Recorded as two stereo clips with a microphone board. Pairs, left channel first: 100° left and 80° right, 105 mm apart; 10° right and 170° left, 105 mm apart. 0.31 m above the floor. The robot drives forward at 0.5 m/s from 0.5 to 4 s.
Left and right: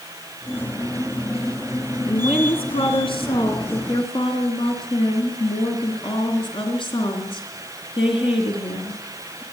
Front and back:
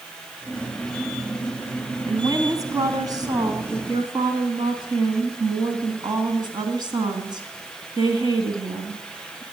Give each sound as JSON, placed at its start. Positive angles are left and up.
{"t": 2.1, "sound": "a woman speaking", "azimuth_deg": 115, "distance_m": 3.5}